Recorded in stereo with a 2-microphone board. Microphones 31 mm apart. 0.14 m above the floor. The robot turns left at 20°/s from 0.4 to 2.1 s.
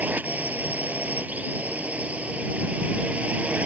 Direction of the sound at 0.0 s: 85° right.